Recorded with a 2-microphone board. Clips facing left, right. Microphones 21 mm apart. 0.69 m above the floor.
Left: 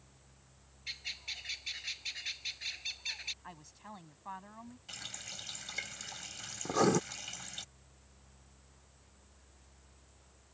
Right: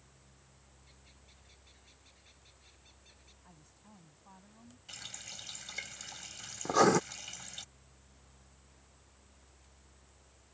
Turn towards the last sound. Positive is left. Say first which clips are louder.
# right 3 dB
turn(degrees=-30)  # may be behind; listen again after turning